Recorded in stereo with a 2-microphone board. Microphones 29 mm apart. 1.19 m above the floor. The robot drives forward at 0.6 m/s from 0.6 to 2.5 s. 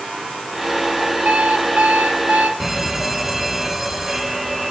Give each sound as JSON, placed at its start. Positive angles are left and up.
{"t": 1.2, "sound": "an alarm clock", "side_deg": -65, "distance_m": 1.5}
{"t": 2.6, "sound": "an alarm", "side_deg": -10, "distance_m": 1.5}